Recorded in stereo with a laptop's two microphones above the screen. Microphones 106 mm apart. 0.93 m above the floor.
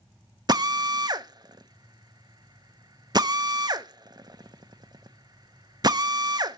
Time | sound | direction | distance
0.5 | a drill | 40° right (ahead or behind) | 0.9 m